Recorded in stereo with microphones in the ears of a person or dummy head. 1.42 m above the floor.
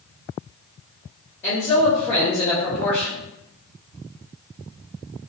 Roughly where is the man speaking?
Centre.